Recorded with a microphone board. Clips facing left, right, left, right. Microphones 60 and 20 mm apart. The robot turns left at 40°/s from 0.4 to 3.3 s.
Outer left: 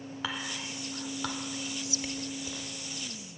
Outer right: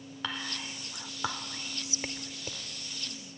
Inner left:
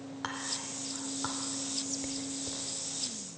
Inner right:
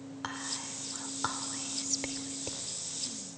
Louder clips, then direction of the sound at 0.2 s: Even, inner left 1 dB; 5° left (ahead or behind).